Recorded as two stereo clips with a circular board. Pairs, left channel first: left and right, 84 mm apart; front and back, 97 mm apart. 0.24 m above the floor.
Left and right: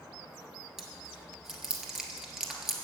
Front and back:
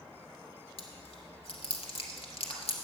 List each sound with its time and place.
0.8 s chewing: 5° right, 1.6 m